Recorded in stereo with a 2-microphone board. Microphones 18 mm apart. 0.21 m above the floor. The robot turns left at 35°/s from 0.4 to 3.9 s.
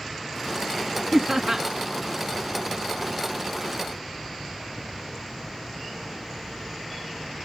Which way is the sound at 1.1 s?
25° right (ahead or behind).